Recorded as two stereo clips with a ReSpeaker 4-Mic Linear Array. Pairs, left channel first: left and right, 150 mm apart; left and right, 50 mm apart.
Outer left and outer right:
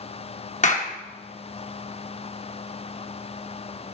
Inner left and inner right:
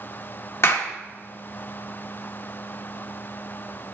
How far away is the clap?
About 1.3 m.